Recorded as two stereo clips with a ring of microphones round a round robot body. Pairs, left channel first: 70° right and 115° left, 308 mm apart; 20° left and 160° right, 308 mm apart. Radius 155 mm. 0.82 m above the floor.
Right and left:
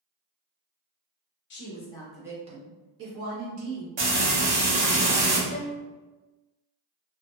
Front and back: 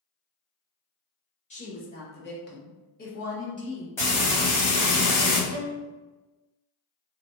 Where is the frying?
105° left, 1.4 m.